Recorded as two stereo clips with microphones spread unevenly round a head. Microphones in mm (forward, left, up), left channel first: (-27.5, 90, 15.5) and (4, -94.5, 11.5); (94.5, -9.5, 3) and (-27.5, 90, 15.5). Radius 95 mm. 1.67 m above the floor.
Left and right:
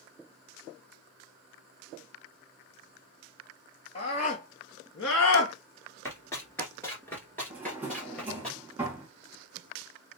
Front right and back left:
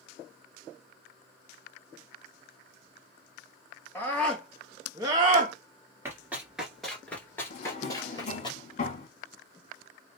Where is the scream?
40° left, 1.5 m; by 5.5 s 105° left, 0.9 m.